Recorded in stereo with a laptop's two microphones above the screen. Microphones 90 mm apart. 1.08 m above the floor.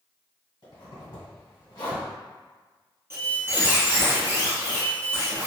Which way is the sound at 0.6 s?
55° left (ahead or behind).